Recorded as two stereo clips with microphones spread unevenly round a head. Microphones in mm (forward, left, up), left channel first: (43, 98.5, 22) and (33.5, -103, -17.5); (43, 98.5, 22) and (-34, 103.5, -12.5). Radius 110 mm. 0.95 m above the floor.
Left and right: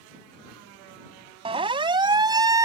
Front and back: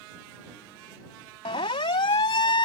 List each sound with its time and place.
1.4 s a siren: 30° right; by 2.6 s 20° right